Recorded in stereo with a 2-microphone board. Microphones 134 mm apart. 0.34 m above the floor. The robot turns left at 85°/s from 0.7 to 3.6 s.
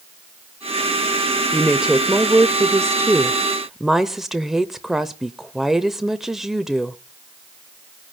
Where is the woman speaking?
Centre (ahead or behind), 0.8 m.